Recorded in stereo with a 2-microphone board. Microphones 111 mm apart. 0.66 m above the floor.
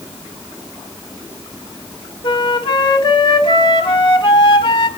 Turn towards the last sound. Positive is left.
turn(degrees=50)  # may be behind; listen again after turning